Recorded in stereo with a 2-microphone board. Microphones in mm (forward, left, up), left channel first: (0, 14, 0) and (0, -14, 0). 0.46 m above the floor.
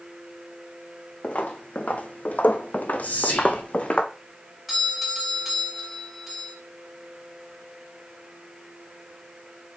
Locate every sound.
1.2 s footsteps: 50° left (ahead or behind), 1.4 m; by 4.0 s 45° left (ahead or behind), 1.4 m
3.0 s whispering: 65° left (ahead or behind), 4 m
4.7 s a doorbell: centre (ahead or behind), 4 m